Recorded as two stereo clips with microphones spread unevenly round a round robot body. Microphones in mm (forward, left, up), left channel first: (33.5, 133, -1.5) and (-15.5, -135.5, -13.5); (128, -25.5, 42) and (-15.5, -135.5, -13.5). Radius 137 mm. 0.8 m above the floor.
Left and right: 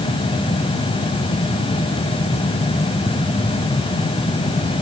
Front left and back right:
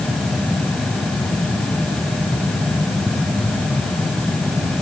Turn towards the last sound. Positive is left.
No sound to turn to.